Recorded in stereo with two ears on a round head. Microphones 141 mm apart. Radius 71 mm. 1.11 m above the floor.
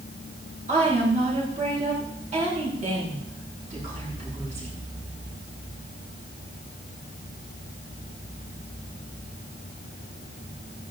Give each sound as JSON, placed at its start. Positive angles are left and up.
{"t": 0.7, "sound": "a woman speaking", "side_deg": -45, "distance_m": 9.5}